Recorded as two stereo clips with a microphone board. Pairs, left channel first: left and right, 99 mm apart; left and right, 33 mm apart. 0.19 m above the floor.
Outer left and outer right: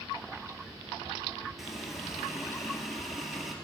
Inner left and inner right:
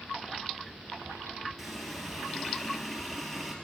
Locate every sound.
1.6 s a running tap: centre (ahead or behind), 2.5 m